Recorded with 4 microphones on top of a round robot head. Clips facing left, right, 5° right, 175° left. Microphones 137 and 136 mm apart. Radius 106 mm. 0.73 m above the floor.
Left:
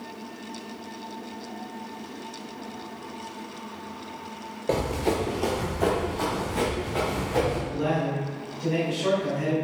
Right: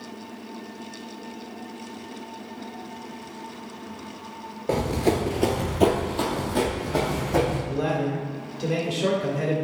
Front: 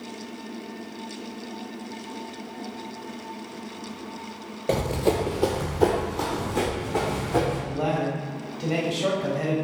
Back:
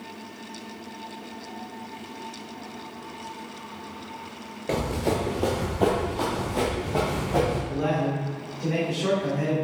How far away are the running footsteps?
About 0.7 m.